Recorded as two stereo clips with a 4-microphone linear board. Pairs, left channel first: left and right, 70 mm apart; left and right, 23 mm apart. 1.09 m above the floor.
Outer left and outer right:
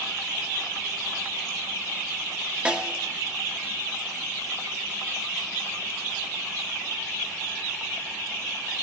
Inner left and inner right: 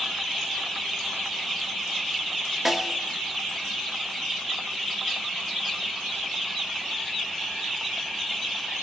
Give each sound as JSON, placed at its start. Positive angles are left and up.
{"t": 2.6, "sound": "a snare drum", "side_deg": -15, "distance_m": 1.8}